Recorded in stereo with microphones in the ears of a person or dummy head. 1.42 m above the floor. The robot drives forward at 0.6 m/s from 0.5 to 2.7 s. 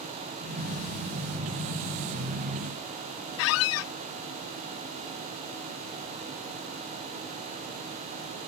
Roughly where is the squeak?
Left.